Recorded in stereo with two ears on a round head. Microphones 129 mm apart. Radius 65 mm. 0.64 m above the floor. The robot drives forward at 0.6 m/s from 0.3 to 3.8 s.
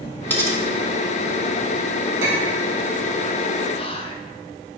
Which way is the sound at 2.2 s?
20° right (ahead or behind).